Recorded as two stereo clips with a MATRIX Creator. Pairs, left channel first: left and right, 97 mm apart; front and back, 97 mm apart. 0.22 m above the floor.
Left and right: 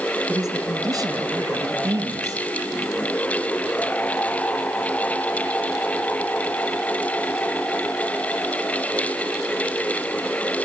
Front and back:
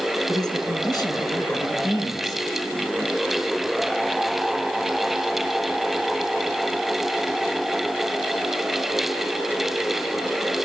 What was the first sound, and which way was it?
A man speaking, 40° right.